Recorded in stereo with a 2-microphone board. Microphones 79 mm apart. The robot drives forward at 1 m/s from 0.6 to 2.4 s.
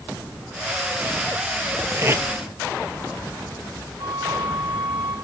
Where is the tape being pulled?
35° right (ahead or behind), 1.2 m; by 2.2 s 30° right (ahead or behind), 1.4 m.